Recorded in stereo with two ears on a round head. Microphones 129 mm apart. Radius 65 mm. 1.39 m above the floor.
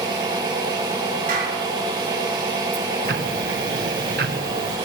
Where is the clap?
70° right (ahead or behind), 5.5 m.